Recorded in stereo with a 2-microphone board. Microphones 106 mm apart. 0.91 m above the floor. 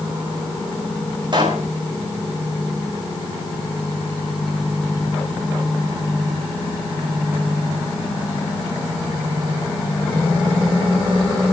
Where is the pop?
45° right (ahead or behind), 3.5 m.